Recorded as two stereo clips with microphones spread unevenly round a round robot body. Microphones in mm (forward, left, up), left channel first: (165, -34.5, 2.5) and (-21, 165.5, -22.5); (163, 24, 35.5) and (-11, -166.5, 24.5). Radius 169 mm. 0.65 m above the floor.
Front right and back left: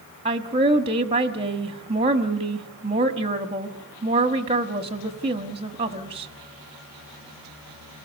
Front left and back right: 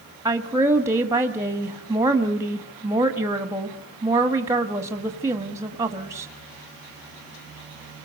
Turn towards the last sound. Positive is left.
turn(degrees=165)